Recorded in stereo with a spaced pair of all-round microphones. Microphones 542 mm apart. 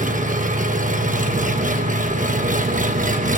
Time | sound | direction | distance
0.0 | an engine running | 15° right (ahead or behind) | 1.1 m